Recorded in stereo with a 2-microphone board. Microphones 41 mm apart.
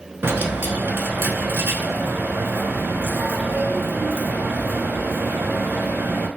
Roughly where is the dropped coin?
Right.